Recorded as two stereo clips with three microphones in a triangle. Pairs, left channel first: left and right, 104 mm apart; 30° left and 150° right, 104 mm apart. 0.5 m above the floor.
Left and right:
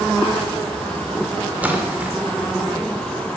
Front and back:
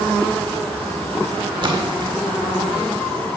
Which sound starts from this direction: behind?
A splash, at 1.6 s.